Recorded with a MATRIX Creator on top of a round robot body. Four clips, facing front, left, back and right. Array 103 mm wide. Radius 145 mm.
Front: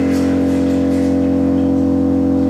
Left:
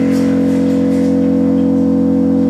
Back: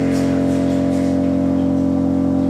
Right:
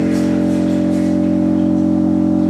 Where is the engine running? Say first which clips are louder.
Left 3 dB, front 2 dB; 45° left, 3.5 m.